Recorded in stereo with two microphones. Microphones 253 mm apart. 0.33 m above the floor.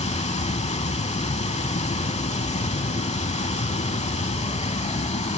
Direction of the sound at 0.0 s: 25° left (ahead or behind).